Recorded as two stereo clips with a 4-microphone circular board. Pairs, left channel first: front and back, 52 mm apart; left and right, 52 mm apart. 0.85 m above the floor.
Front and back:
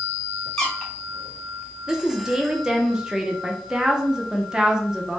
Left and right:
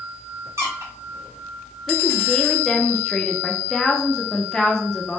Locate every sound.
0.6 s a squeak: 80° right, 1.1 m
1.9 s a woman speaking: 140° left, 0.5 m